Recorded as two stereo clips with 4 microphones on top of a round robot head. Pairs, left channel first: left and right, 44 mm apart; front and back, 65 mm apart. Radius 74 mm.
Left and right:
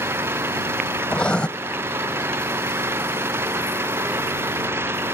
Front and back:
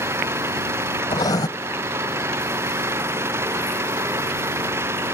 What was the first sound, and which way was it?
An engine running, 125° right.